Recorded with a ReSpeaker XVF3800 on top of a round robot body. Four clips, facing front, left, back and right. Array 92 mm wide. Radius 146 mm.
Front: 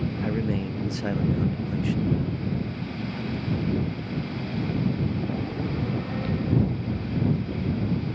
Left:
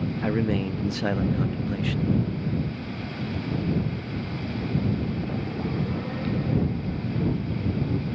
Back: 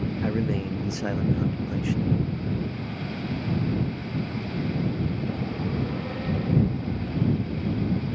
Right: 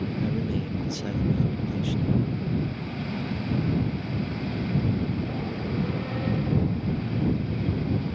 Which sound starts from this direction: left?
A man speaking, at 0.2 s.